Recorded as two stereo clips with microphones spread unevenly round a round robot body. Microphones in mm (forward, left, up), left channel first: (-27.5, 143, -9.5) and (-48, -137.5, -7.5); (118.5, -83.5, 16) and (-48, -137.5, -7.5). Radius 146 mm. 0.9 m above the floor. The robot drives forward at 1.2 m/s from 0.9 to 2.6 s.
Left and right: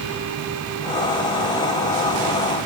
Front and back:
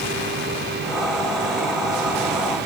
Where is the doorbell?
I don't hear a doorbell.